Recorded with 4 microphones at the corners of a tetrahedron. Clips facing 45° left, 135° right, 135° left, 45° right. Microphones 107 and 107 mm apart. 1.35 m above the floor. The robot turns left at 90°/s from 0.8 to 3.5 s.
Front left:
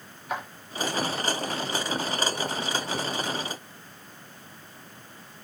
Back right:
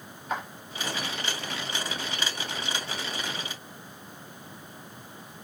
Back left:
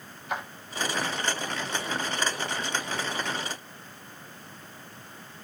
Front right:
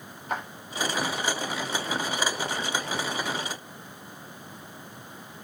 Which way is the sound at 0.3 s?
40° right.